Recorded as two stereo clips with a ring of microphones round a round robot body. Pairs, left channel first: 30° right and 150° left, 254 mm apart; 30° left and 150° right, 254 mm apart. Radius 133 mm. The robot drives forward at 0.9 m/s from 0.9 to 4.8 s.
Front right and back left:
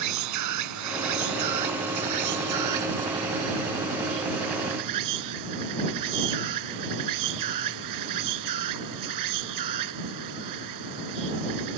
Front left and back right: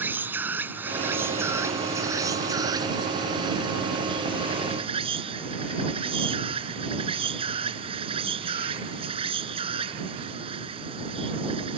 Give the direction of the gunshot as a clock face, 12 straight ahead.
I don't hear a gunshot.